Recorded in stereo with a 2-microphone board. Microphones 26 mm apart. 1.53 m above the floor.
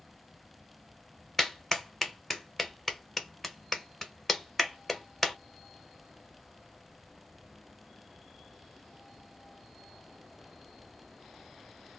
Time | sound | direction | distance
1.4 | a clap | 10° left (ahead or behind) | 0.9 m